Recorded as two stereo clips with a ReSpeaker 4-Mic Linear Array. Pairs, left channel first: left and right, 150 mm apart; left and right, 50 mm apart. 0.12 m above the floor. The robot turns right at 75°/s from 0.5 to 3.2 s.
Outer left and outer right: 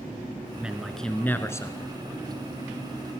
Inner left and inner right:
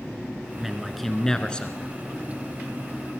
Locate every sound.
0.6 s a man speaking: 10° right (ahead or behind), 1.2 m; by 1.9 s 25° left (ahead or behind), 1.2 m